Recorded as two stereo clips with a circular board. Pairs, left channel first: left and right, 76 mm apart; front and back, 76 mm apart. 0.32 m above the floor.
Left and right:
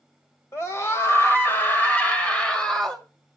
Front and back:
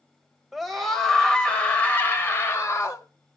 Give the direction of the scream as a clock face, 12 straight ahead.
9 o'clock.